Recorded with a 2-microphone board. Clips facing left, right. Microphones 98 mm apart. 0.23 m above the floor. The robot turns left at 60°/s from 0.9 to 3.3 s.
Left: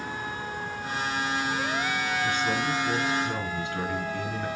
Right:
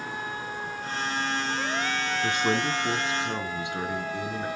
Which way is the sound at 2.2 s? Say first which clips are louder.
Right 3 dB; 95° right.